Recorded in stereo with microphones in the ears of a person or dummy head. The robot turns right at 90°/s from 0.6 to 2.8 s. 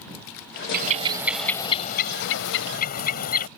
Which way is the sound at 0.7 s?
60° right.